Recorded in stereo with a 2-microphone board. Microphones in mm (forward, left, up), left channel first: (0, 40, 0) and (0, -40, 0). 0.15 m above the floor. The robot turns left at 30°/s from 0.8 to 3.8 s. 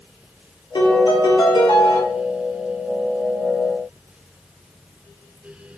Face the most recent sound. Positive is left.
turn(degrees=0)